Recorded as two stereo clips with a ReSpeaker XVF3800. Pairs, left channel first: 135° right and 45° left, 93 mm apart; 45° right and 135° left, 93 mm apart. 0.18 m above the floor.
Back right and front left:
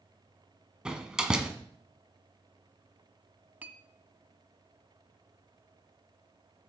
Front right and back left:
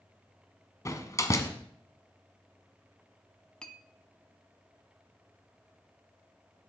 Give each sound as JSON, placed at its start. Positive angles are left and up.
{"t": 0.8, "sound": "a door slam", "azimuth_deg": -30, "distance_m": 1.1}
{"t": 3.6, "sound": "a clink", "azimuth_deg": 15, "distance_m": 0.6}